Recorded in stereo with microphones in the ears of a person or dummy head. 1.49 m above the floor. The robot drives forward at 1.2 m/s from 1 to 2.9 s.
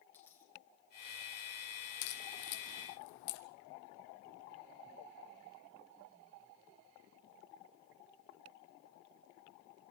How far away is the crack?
About 1.9 m.